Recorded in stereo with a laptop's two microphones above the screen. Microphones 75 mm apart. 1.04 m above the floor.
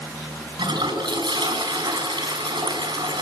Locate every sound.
0.6 s a toilet flushing: 85° right, 5 m